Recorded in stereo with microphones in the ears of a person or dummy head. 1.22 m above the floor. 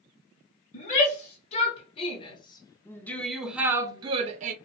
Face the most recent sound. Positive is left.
turn(degrees=-45)  # may be behind; listen again after turning